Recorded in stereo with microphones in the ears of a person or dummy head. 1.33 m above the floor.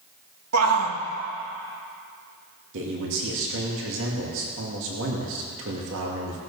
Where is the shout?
90° right, 1.6 m.